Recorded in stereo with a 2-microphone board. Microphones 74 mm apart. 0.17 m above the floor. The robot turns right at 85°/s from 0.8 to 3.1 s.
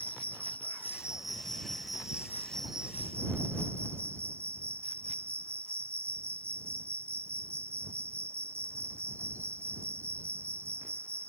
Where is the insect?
25° left; by 11.3 s 140° right.